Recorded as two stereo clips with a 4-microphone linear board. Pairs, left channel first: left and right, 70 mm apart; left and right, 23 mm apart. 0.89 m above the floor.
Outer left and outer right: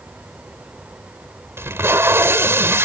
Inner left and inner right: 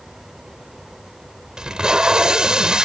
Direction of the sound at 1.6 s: 35° right (ahead or behind).